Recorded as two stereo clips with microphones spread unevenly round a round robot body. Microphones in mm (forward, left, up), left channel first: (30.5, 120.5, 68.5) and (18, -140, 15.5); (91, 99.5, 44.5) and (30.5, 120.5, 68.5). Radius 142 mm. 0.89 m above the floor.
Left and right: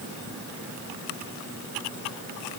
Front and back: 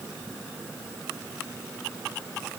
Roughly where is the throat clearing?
No throat clearing in this recording.